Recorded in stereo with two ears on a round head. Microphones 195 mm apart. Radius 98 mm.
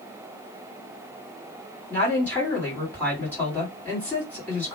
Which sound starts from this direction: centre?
A woman speaking, at 1.9 s.